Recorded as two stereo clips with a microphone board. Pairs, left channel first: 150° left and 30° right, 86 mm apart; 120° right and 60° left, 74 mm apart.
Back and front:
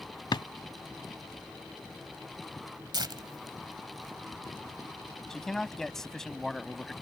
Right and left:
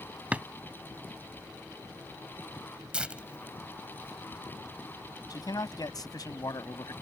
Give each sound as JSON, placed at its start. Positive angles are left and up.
{"t": 0.3, "sound": "a drawer", "azimuth_deg": 130}
{"t": 2.9, "sound": "tearing paper", "azimuth_deg": -15}
{"t": 5.3, "sound": "a man speaking", "azimuth_deg": -125}